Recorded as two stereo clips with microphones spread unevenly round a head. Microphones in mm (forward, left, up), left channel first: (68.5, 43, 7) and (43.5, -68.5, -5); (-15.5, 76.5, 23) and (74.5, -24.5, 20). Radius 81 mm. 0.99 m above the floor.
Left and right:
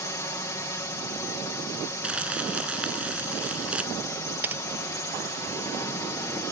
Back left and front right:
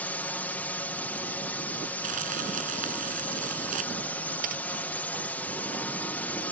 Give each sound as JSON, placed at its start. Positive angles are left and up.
{"t": 0.0, "sound": "a drone", "azimuth_deg": 70}
{"t": 2.0, "sound": "crumpling", "azimuth_deg": -20}
{"t": 4.4, "sound": "typing on a keyboard", "azimuth_deg": -30}